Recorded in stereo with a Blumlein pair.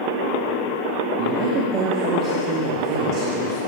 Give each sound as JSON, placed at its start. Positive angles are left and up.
{"t": 1.2, "sound": "a man speaking", "azimuth_deg": -35, "distance_m": 2.0}